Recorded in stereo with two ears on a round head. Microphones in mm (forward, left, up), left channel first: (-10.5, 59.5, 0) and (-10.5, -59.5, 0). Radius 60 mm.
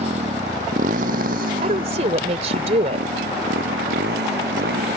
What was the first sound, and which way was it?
A motorcycle, 50° right (ahead or behind).